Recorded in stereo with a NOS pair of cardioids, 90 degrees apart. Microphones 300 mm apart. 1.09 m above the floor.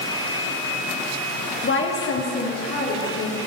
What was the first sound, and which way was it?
A woman speaking, 35° left.